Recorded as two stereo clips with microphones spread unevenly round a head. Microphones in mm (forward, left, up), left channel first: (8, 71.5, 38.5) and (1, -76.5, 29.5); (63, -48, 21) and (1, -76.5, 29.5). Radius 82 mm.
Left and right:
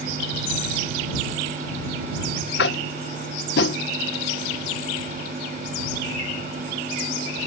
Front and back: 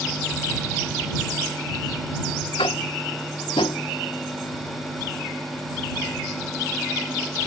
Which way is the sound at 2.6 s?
75° left.